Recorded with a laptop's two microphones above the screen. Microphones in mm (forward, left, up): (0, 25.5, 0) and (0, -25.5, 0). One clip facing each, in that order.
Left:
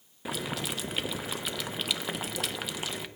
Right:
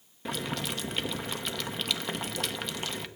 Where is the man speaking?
No man speaking in this recording.